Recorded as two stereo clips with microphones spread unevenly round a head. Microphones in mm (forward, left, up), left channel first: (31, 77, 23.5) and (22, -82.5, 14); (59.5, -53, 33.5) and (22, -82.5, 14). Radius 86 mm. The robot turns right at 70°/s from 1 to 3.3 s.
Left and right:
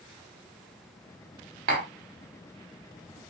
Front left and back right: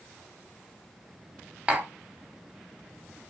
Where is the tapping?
65° right, 1.3 m; by 1.9 s 50° right, 1.3 m.